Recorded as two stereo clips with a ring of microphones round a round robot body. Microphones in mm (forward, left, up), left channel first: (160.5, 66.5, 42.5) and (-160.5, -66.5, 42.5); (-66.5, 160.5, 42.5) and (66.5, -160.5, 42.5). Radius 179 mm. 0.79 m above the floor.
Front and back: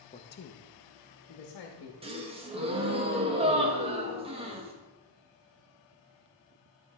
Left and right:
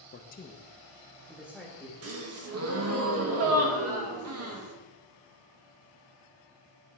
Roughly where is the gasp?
Right.